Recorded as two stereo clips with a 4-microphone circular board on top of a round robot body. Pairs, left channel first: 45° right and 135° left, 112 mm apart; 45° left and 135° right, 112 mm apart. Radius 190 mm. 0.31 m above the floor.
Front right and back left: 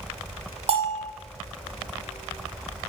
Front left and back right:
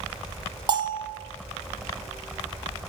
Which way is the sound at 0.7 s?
175° left.